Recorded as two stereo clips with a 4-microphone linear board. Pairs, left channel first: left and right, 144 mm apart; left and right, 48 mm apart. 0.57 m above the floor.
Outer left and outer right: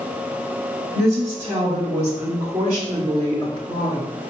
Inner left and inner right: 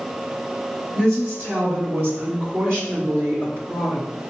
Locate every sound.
0.9 s a woman speaking: 40° right (ahead or behind), 1.5 m